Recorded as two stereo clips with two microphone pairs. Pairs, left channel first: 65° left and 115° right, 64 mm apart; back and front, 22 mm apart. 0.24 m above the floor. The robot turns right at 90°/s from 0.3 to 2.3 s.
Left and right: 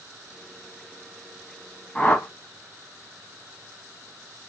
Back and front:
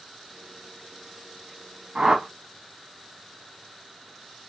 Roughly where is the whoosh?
Ahead.